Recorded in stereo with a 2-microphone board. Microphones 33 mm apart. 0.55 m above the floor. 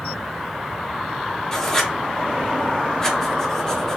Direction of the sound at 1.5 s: 15° left (ahead or behind).